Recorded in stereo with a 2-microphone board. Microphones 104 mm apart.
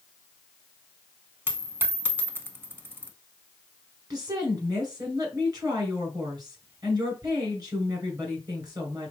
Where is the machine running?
I don't hear a machine running.